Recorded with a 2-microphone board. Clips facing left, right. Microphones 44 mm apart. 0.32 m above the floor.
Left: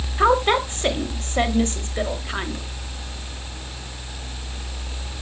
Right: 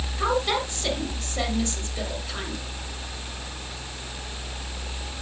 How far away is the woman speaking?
About 1.5 m.